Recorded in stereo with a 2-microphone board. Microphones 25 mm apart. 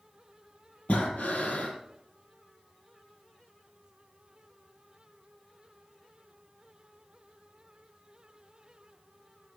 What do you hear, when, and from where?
0.9 s breathing: 65° left (ahead or behind), 3 m